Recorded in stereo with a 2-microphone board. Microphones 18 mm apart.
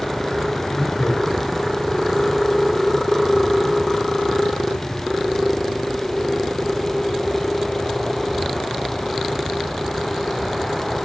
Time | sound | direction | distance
0.6 | laughter | 20° left (ahead or behind) | 5.5 m